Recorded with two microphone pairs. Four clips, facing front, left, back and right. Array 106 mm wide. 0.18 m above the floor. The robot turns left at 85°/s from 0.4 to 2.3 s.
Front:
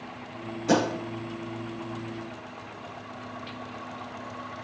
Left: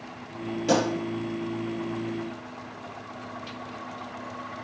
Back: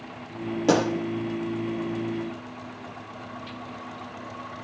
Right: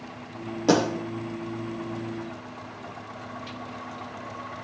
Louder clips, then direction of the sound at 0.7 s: Right 2 dB, back 2 dB; 150° right.